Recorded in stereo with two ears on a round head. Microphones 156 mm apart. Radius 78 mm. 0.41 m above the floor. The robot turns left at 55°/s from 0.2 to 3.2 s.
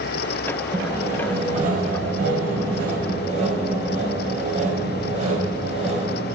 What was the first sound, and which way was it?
Sawing, straight ahead.